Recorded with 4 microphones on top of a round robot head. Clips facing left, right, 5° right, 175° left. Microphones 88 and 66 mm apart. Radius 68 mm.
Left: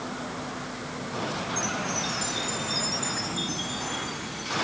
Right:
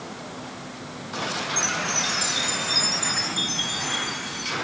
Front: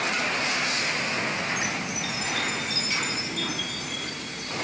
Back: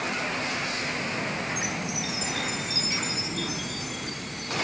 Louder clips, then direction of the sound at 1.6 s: Right 2 dB, front 1 dB; 110° right.